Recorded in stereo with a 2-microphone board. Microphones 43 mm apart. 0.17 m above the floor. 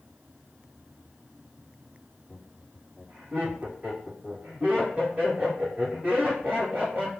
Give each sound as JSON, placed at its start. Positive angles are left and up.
{"t": 2.3, "sound": "laughter", "side_deg": -30, "distance_m": 1.4}